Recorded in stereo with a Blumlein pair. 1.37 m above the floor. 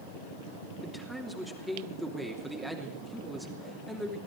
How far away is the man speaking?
About 3 m.